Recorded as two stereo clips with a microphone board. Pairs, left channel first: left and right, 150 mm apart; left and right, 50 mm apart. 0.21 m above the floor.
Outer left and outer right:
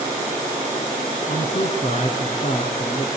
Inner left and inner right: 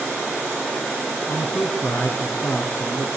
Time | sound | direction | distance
1.3 | a man speaking | 50° left (ahead or behind) | 2.5 m